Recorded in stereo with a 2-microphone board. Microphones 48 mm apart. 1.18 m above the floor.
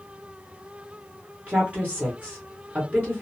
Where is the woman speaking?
35° right (ahead or behind), 1.0 m.